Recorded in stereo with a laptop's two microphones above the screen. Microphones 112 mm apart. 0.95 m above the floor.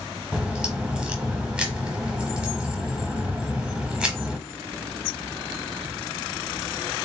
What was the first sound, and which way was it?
A crack, 10° right (ahead or behind).